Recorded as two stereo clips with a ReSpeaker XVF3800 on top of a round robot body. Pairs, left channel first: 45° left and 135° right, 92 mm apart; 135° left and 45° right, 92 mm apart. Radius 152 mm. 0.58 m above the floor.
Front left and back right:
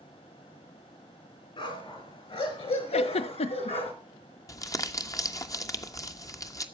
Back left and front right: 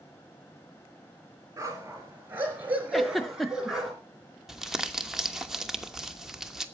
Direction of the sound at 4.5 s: 40° left.